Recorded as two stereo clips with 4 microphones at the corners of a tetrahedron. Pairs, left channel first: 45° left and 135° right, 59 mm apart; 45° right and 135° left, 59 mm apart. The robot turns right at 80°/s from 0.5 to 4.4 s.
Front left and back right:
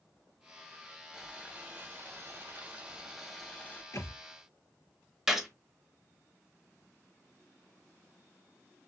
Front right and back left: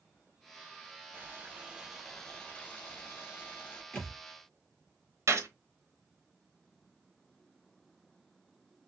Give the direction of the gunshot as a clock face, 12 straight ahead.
7 o'clock.